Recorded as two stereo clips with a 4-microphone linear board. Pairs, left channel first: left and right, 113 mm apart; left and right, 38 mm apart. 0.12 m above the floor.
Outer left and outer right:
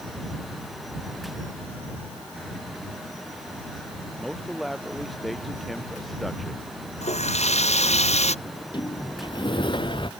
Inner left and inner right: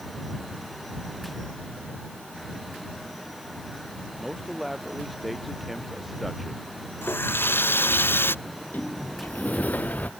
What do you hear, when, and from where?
4.2 s a man speaking: centre (ahead or behind)
7.0 s a running tap: 70° left (ahead or behind)
8.4 s a sliding door: 45° left (ahead or behind)